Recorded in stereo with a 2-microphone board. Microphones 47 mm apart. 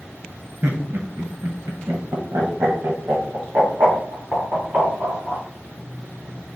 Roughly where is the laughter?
Right.